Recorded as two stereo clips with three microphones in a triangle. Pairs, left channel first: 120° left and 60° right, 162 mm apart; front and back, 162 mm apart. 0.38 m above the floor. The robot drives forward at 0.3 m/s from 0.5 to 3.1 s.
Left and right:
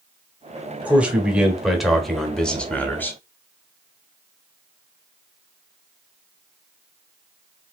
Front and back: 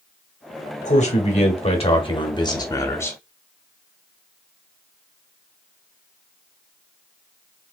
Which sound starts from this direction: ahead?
A man speaking, at 0.8 s.